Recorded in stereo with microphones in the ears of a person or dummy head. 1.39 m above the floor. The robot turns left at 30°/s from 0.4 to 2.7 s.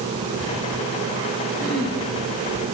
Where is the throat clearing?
5° right (ahead or behind), 1.6 m; by 2.0 s 5° left (ahead or behind), 1.6 m.